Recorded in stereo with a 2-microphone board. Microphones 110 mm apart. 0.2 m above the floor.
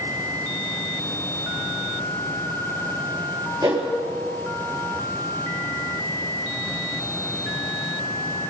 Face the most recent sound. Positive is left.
turn(degrees=-30)  # may be behind; listen again after turning